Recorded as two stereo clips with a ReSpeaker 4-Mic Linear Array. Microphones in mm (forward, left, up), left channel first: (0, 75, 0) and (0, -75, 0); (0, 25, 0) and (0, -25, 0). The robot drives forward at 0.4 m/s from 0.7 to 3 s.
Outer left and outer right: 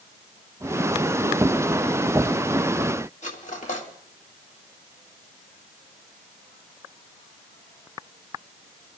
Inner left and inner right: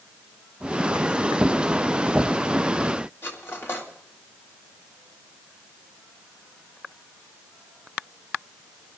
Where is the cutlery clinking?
55° left (ahead or behind), 1.9 m.